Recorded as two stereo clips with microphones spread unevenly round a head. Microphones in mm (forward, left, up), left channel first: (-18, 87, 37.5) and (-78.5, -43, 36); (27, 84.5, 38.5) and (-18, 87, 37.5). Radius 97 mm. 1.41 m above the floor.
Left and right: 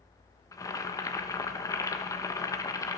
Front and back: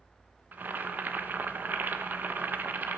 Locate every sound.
0.5 s boiling: 130° left, 1.2 m